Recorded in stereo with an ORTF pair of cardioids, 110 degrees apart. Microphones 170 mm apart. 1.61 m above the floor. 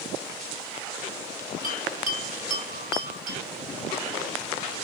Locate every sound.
1.6 s a bell: 50° right, 2.5 m